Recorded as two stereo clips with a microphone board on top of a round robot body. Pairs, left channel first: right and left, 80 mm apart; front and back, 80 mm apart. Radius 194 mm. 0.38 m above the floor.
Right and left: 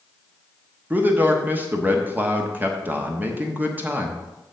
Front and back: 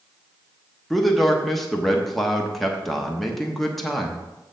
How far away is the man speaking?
About 1.4 m.